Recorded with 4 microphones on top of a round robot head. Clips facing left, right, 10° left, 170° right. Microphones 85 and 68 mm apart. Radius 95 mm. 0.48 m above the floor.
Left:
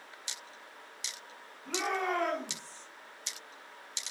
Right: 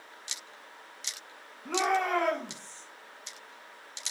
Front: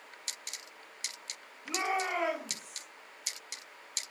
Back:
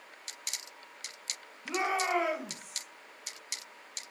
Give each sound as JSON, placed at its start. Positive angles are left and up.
{"t": 1.6, "sound": "a shout", "azimuth_deg": -125, "distance_m": 3.5}